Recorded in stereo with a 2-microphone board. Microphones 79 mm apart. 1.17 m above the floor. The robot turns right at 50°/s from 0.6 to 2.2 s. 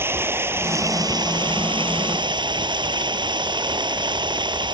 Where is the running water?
150° right; by 4.8 s 70° right.